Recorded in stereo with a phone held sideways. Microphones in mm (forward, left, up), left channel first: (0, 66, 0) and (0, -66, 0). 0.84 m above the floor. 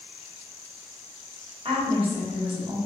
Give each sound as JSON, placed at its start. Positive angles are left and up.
{"t": 1.6, "sound": "a woman speaking", "side_deg": -40, "distance_m": 1.5}